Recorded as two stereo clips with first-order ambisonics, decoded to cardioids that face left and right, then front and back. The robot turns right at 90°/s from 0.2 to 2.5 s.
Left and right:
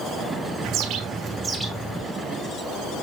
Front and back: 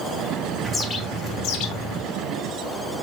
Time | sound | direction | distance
0.6 | a bird | 85° right | 1.2 m